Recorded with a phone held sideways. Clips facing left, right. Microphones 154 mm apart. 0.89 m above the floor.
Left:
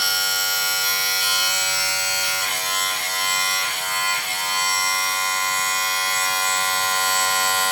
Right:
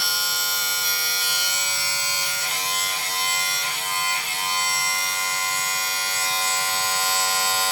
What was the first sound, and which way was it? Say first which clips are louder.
A machine running: left 3 dB; 65° left (ahead or behind).